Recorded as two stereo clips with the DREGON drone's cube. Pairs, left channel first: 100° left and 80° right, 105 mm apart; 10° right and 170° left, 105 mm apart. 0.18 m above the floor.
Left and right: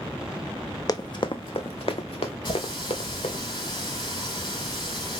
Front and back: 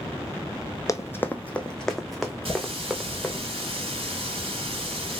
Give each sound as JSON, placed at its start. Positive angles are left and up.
{"t": 0.9, "sound": "running footsteps", "azimuth_deg": 45, "distance_m": 0.7}
{"t": 2.5, "sound": "a running tap", "azimuth_deg": 140, "distance_m": 3.5}